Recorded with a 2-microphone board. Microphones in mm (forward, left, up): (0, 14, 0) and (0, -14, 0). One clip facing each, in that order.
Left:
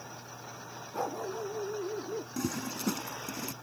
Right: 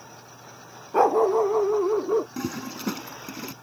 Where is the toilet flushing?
20° right (ahead or behind).